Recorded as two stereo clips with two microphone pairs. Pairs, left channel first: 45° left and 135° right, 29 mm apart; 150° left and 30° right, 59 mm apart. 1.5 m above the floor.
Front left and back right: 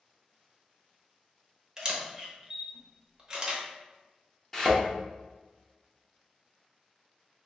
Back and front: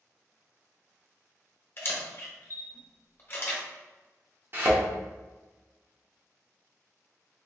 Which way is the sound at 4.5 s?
30° right.